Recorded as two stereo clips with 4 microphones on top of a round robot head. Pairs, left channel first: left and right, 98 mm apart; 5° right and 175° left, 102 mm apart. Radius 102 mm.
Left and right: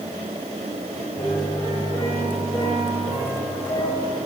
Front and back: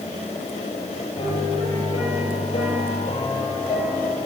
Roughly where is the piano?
Ahead left.